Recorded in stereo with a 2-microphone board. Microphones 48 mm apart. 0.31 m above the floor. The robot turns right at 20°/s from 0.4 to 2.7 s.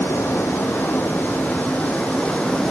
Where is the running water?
120° left, 1.1 m; by 2.7 s 170° left, 1.1 m.